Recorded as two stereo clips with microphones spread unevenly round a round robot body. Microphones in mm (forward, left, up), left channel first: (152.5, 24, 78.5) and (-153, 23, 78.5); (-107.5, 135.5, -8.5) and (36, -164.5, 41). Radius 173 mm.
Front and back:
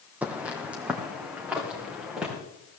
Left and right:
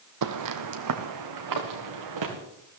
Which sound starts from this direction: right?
Footsteps, at 0.2 s.